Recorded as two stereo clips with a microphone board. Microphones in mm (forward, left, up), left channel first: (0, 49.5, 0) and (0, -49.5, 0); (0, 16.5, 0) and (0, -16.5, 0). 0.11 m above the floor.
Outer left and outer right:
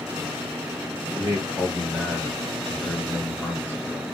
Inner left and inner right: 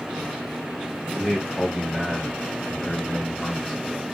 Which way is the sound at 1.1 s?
10° right (ahead or behind).